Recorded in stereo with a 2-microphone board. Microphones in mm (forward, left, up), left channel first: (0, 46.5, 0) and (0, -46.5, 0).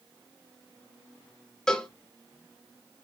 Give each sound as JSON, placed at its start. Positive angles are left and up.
{"t": 1.7, "sound": "a cowbell", "side_deg": 10, "distance_m": 1.2}